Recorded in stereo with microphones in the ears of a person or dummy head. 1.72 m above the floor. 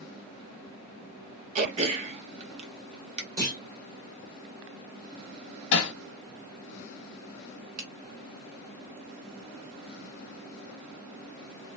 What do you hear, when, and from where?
1.6 s throat clearing: 35° right (ahead or behind), 0.9 m
3.4 s a clunk: 20° right (ahead or behind), 2.5 m
5.7 s hammering: 65° left (ahead or behind), 1.0 m
7.8 s a finger snap: 50° right (ahead or behind), 1.0 m